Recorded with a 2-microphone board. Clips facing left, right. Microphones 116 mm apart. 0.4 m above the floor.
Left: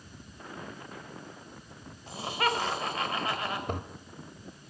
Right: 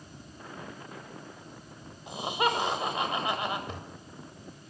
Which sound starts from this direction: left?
A toilet flushing, at 3.7 s.